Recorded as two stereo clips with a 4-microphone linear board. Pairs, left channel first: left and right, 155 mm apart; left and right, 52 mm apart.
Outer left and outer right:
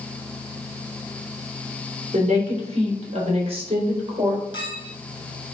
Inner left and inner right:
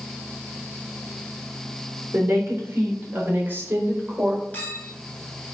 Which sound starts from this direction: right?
A woman speaking, at 2.1 s.